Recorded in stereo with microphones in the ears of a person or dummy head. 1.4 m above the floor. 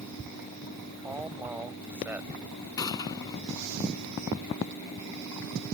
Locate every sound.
1.0 s a man speaking: 5° right (ahead or behind)
2.8 s a gunshot: 20° left (ahead or behind)